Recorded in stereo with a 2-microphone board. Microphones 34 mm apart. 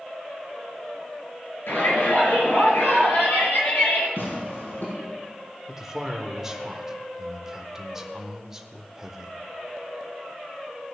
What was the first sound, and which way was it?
A shout, 80° left.